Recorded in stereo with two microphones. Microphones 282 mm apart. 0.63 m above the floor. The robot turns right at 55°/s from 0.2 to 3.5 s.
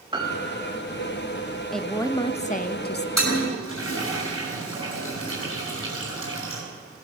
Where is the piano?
20° right, 1.4 m; by 0.8 s 15° left, 1.4 m.